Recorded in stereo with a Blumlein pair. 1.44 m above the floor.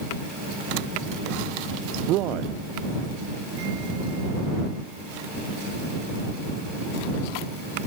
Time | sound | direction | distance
2.1 | a man speaking | 35° right | ?